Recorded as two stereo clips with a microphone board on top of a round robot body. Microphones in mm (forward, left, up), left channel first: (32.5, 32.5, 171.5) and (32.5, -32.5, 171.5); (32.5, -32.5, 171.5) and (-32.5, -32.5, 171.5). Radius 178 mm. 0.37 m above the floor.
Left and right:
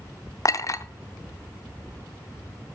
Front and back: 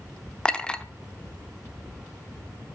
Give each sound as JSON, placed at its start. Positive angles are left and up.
{"t": 0.5, "sound": "a clink", "azimuth_deg": 75, "distance_m": 0.7}